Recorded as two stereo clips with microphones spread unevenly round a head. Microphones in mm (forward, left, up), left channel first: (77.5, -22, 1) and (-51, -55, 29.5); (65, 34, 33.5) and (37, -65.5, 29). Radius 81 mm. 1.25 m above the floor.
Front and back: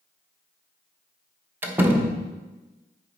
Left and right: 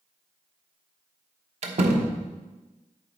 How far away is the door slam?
About 1.0 m.